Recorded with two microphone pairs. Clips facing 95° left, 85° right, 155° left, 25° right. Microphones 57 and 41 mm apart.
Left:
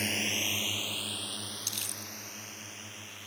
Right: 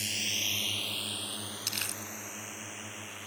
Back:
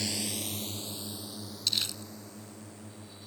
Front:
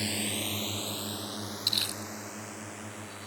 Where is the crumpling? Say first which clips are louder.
Right 4 dB, even; 95° right.